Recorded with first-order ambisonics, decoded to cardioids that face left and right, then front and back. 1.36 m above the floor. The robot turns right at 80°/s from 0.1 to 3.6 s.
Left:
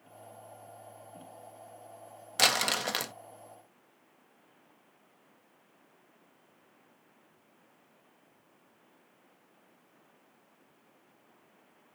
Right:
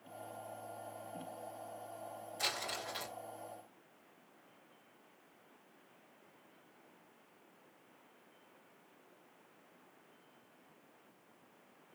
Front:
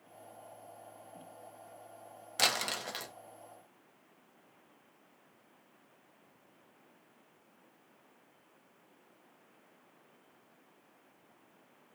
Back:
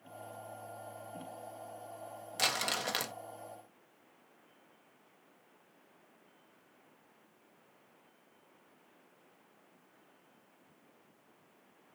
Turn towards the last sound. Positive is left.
turn(degrees=170)